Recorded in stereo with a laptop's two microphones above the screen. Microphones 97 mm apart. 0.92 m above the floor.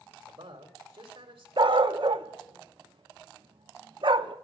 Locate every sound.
0.2 s a man speaking: 75° right (ahead or behind), 2.5 m
1.6 s a dog barking: 60° right (ahead or behind), 0.5 m